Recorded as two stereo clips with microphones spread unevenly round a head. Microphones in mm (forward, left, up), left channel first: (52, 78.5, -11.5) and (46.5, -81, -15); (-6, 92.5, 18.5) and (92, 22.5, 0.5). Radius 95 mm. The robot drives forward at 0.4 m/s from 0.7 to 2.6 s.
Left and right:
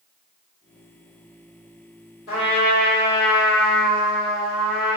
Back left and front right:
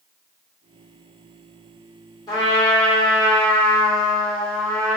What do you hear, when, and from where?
2.3 s a trumpet: 85° left, 1.7 m; by 5.0 s 90° left, 1.7 m